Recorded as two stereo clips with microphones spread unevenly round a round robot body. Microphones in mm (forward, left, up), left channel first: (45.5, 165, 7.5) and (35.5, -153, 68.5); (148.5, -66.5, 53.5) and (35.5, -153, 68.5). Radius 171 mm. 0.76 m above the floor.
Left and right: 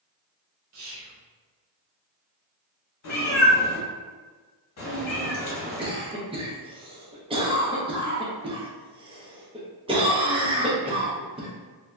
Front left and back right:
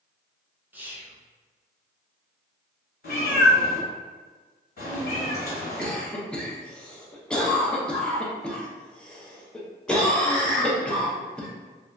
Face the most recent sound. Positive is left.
turn(degrees=-15)